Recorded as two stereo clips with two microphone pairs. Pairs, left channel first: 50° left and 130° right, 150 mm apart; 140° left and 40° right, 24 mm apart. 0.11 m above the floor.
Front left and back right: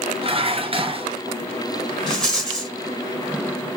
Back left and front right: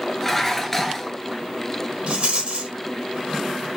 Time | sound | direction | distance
0.2 | dishes clattering | 145° right | 1.1 m
2.1 | a rattle | 35° right | 2.5 m